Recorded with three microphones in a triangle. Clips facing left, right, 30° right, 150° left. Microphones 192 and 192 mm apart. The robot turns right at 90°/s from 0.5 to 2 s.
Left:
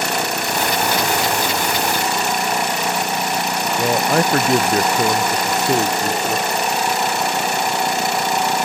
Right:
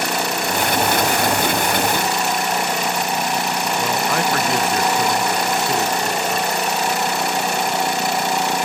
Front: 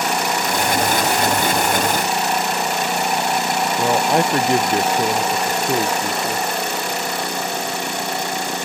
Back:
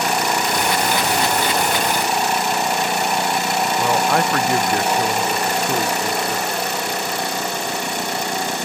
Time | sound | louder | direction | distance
3.8 | a man speaking | left 6 dB, front 2 dB | 40° left | ?